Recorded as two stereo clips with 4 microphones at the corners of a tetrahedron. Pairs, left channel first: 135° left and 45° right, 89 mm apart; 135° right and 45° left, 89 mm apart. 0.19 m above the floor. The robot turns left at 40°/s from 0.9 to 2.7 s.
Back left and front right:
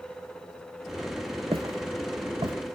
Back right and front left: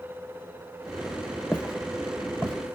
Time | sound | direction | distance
1.5 | footsteps | 60° right | 0.6 m